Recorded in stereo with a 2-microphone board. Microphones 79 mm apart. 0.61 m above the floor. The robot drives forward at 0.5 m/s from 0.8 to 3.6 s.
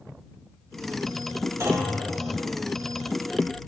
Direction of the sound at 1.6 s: 40° right (ahead or behind).